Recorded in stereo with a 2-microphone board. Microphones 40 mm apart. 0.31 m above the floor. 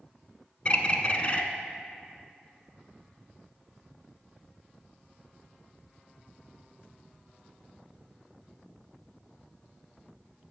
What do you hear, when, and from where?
0.7 s a bird: 30° left (ahead or behind), 0.6 m